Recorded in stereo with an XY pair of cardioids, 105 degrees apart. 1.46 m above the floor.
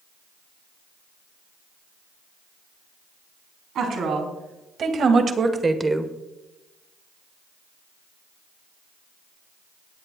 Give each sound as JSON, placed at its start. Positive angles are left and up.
{"t": 3.8, "sound": "a woman speaking", "azimuth_deg": -65, "distance_m": 3.0}